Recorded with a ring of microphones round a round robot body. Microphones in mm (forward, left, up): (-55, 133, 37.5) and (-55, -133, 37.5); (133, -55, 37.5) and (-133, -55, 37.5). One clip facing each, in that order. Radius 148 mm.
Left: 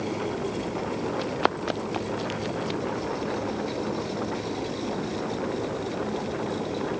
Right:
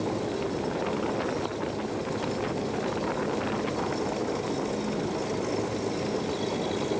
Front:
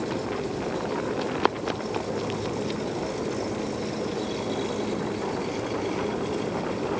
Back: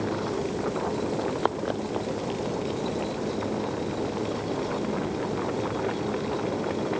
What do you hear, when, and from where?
1.2 s running footsteps: 55° left; by 2.8 s 65° left